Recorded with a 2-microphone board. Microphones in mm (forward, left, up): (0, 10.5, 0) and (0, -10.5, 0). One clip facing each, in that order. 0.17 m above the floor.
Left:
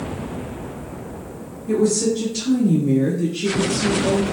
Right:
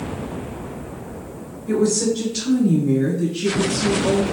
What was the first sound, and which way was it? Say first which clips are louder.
A woman speaking: even; 25° right (ahead or behind).